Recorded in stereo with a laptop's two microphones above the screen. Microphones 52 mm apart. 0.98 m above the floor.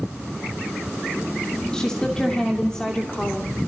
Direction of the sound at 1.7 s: 15° left (ahead or behind).